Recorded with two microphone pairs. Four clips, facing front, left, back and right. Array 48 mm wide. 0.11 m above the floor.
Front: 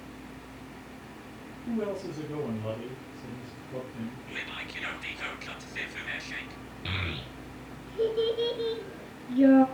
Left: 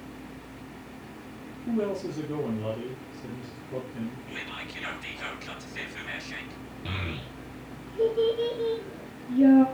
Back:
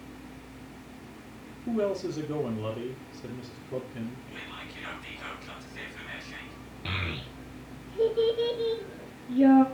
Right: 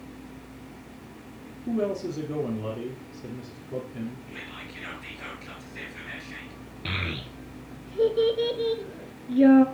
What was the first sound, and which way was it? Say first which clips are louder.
A man speaking: right 1 dB, back 4 dB; 155° right.